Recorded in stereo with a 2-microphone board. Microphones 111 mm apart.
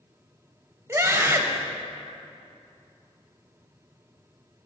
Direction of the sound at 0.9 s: 25° right (ahead or behind).